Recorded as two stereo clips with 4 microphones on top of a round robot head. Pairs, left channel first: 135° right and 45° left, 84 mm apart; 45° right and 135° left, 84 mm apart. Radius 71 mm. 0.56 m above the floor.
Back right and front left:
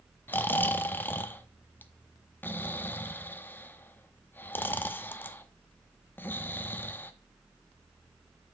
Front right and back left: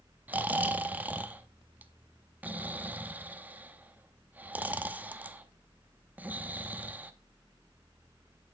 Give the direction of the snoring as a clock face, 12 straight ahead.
6 o'clock.